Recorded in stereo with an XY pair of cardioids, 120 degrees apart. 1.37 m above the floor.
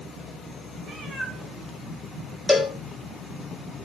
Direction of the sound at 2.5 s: 15° left.